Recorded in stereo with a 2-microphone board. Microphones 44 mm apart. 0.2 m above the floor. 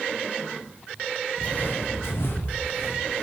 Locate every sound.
1.4 s footsteps: 30° left (ahead or behind), 0.7 m; by 3.2 s 35° left (ahead or behind), 1.8 m